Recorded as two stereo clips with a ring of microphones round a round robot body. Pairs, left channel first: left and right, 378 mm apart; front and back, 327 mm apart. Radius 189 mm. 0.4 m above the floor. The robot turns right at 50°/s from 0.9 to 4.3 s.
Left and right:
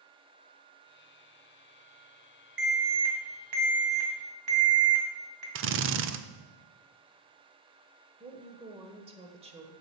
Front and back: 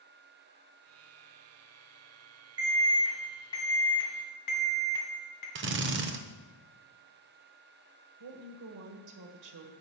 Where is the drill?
135° right, 0.6 m.